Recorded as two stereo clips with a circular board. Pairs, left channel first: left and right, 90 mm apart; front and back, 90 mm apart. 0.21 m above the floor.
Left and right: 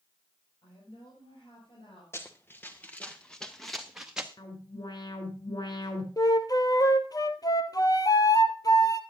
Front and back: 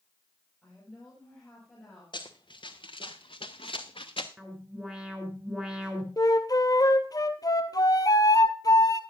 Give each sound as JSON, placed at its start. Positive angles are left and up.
{"t": 0.6, "sound": "a woman speaking", "azimuth_deg": 80, "distance_m": 6.5}
{"t": 2.1, "sound": "running footsteps", "azimuth_deg": 30, "distance_m": 1.9}
{"t": 4.4, "sound": "an alarm", "azimuth_deg": 100, "distance_m": 3.0}
{"t": 6.2, "sound": "a flute", "azimuth_deg": 45, "distance_m": 0.9}